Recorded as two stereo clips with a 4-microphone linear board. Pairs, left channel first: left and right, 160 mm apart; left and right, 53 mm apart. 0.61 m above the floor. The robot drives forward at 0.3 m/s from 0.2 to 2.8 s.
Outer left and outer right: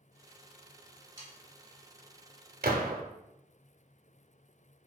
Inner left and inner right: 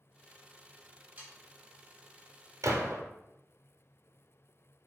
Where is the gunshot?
75° right (ahead or behind), 0.6 m; by 3.0 s 70° right (ahead or behind), 0.7 m.